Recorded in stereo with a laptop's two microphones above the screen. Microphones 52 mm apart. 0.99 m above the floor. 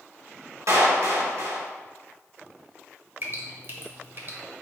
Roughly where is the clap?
Right.